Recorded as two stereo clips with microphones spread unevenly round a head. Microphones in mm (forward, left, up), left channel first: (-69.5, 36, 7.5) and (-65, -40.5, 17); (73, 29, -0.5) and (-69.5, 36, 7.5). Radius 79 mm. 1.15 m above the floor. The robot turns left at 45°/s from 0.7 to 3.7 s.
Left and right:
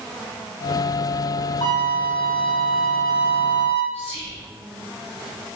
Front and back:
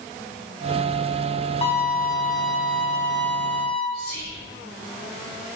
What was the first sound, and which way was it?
A violin, 40° left.